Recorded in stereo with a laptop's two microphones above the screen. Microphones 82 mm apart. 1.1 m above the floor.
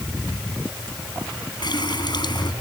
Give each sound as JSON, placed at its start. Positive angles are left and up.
{"t": 1.6, "sound": "a running tap", "side_deg": 60}